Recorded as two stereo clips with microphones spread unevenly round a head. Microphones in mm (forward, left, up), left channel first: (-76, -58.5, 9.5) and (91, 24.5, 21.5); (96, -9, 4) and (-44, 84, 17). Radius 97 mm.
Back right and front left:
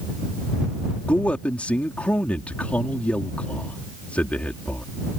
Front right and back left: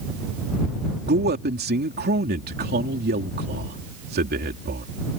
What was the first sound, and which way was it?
A man speaking, 125° left.